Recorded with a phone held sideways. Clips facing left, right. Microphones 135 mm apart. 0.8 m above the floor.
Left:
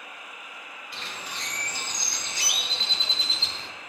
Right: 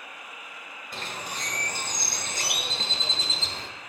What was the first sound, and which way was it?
A bird, 45° right (ahead or behind).